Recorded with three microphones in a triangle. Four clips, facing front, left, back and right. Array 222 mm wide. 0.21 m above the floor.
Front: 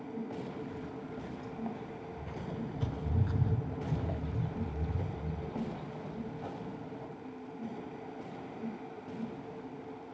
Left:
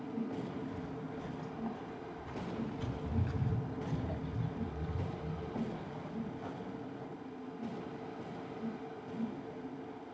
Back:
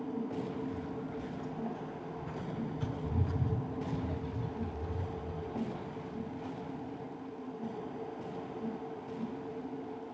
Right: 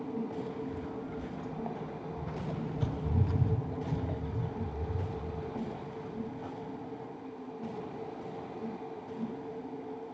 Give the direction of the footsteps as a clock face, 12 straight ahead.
3 o'clock.